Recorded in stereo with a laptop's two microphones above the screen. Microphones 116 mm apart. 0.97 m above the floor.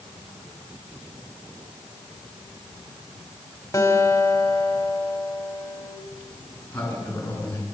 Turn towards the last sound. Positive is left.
turn(degrees=15)  # may be behind; listen again after turning